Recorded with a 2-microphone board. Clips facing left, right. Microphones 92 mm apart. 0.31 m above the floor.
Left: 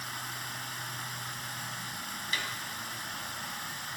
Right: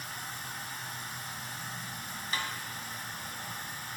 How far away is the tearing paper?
No tearing paper in this recording.